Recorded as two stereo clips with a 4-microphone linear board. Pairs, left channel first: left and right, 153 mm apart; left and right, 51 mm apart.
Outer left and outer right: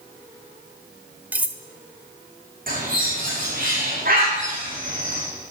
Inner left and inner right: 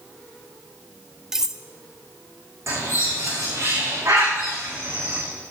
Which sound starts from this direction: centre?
Cutlery clinking, at 1.3 s.